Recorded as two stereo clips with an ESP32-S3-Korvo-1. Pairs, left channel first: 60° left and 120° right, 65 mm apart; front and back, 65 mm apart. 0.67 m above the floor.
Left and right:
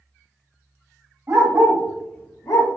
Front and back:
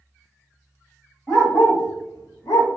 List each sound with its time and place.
1.3 s a dog barking: 75° right, 1.3 m; by 2.7 s 35° left, 1.0 m